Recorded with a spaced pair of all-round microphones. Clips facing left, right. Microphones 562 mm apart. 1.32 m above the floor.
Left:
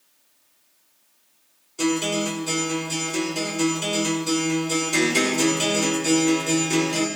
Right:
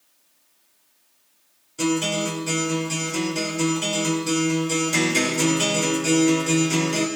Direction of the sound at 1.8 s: 40° right (ahead or behind).